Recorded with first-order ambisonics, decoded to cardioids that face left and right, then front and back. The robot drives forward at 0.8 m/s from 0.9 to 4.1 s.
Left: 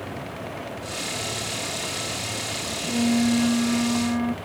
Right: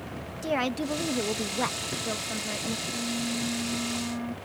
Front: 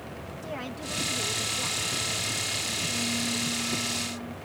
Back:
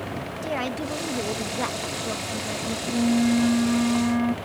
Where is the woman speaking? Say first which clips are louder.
Right 5 dB, back 8 dB; 120° right; by 2.8 s 140° right.